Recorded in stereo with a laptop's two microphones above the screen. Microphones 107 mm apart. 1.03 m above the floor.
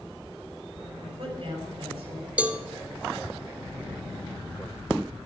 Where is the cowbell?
15° right (ahead or behind), 0.7 m.